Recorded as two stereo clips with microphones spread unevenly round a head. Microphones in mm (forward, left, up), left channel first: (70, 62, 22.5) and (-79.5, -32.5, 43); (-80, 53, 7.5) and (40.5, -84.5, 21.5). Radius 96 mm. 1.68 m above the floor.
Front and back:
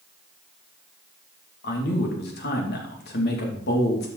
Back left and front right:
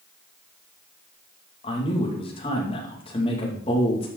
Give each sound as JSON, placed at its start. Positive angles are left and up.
{"t": 1.6, "sound": "a man speaking", "azimuth_deg": 65, "distance_m": 2.5}